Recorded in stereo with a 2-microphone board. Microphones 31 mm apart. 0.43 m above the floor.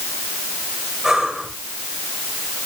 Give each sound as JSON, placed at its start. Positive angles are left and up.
{"t": 1.0, "sound": "breathing", "side_deg": -10, "distance_m": 5.5}